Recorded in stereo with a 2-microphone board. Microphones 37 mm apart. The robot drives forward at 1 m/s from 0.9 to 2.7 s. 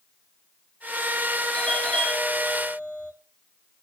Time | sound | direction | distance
1.5 | a doorbell | 25° left (ahead or behind) | 3.5 m